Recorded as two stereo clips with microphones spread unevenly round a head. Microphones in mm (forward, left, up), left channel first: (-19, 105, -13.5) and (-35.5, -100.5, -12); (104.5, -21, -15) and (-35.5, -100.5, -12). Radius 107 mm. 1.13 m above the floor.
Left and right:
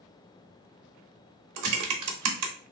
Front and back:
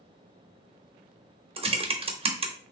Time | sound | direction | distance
1.6 | typing on a keyboard | 95° right | 0.9 m